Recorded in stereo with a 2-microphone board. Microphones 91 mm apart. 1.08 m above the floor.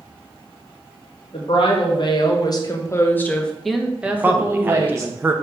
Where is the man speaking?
20° right (ahead or behind), 0.6 m.